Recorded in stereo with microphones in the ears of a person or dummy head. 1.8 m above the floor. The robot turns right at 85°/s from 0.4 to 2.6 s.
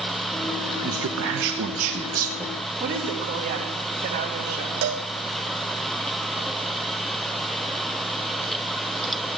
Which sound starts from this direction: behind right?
A man speaking, at 0.8 s.